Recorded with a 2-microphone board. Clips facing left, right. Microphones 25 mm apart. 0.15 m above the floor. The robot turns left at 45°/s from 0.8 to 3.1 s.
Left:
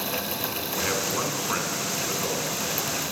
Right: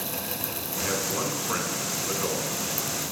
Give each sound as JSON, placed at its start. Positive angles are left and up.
{"t": 0.8, "sound": "a man speaking", "side_deg": 20, "distance_m": 1.6}